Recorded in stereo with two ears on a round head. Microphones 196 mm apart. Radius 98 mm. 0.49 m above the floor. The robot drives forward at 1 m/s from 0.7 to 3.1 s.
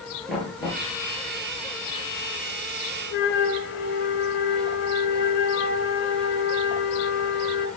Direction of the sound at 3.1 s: 50° left (ahead or behind).